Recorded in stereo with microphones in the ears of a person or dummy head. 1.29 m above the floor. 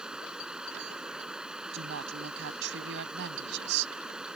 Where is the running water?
5° right (ahead or behind).